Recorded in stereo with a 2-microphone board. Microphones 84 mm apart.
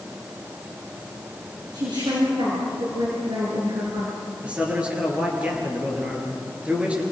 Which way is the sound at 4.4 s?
15° right (ahead or behind).